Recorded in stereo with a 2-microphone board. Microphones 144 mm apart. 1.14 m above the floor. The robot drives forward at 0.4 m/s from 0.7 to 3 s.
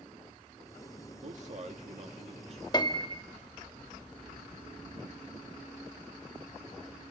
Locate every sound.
1.2 s a man speaking: 55° right (ahead or behind), 2 m; by 2.6 s 45° right (ahead or behind), 2.5 m
2.7 s a piano: 30° left (ahead or behind), 1.2 m; by 3.2 s 35° left (ahead or behind), 1.1 m